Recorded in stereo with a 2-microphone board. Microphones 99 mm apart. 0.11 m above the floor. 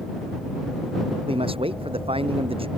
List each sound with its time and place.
1.3 s a man speaking: 70° right (ahead or behind)